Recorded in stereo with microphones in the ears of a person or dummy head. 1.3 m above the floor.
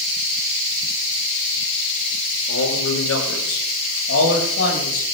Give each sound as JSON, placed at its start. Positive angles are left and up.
{"t": 2.5, "sound": "a man speaking", "side_deg": 80, "distance_m": 5.0}